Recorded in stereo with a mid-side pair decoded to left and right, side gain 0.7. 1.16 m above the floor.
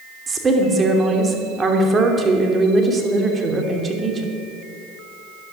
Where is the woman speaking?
20° right, 2.5 m.